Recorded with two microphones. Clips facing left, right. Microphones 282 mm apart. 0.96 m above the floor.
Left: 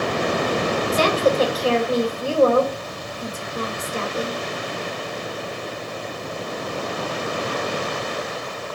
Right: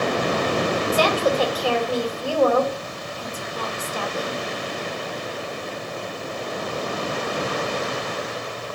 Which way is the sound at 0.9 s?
25° left (ahead or behind).